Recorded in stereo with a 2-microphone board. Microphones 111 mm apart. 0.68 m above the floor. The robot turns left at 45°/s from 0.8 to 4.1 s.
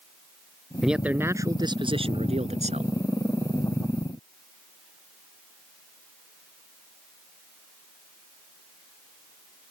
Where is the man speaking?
Straight ahead; by 2.9 s 95° right.